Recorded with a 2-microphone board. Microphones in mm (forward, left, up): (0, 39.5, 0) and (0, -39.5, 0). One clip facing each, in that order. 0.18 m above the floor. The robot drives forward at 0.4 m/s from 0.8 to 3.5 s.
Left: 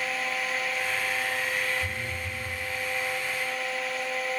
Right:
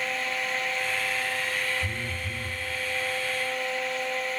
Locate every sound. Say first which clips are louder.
1.8 s a phone buzzing: even; 40° right (ahead or behind), 0.6 m; by 2.6 s 30° right (ahead or behind), 0.8 m